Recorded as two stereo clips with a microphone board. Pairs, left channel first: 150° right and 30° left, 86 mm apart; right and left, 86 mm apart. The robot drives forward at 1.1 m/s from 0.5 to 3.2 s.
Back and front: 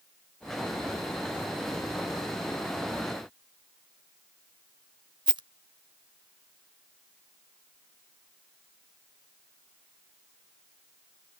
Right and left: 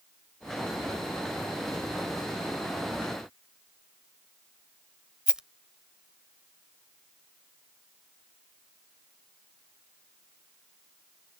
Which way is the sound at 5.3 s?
10° left.